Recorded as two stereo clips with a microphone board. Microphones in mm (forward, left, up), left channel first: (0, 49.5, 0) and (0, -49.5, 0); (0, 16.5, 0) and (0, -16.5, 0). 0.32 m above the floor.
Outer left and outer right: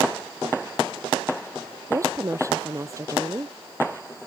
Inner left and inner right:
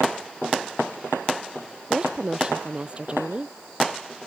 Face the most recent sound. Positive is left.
turn(degrees=-30)  # may be behind; listen again after turning